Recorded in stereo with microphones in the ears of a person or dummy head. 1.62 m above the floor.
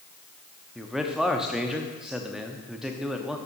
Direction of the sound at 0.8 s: Centre (ahead or behind).